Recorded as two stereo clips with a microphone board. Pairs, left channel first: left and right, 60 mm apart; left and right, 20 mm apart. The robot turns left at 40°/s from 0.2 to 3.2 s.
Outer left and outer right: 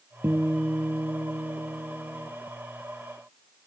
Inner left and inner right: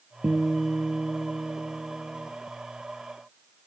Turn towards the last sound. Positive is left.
turn(degrees=-145)